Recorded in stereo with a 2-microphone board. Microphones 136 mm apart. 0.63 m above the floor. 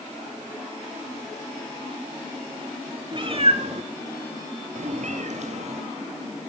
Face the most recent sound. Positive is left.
turn(degrees=-55)  # may be behind; listen again after turning